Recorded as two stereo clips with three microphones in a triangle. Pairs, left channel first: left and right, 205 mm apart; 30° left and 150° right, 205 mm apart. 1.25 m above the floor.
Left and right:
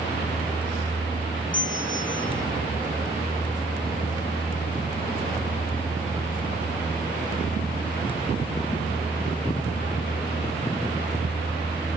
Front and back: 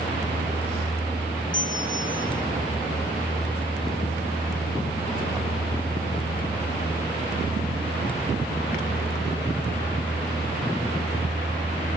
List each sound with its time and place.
1.5 s a bell: 75° left, 2 m